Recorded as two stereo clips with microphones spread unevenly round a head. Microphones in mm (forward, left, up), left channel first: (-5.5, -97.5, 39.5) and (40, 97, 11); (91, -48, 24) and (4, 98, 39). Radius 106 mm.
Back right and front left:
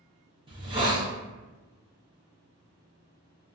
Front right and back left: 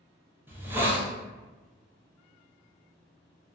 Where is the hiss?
45° left, 0.7 m.